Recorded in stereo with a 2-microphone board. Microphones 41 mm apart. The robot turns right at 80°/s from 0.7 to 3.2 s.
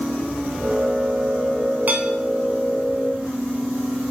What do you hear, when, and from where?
1.9 s dishes clattering: 40° right (ahead or behind), 1.2 m; by 2.1 s 45° right (ahead or behind), 1.2 m